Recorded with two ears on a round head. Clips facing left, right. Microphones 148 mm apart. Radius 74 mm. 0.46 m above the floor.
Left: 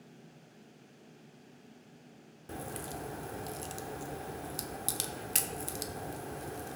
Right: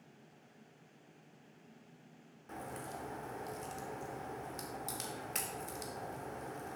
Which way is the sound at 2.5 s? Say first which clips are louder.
Left 4 dB; 40° left (ahead or behind).